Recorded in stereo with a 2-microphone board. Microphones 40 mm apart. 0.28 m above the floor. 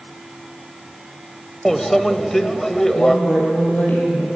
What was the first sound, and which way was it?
A microwave, 5° left (ahead or behind).